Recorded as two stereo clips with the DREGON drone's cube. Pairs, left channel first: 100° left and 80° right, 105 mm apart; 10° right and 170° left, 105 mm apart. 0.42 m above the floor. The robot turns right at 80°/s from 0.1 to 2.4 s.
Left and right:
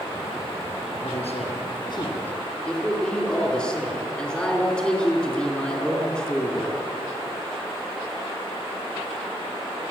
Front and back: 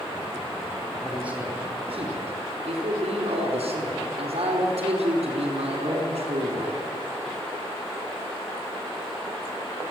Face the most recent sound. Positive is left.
turn(degrees=180)